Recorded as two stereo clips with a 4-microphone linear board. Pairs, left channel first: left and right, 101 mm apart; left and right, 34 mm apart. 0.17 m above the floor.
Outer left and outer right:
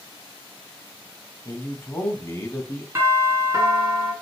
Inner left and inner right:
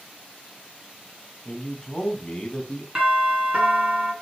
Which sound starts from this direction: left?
A man speaking, at 1.4 s.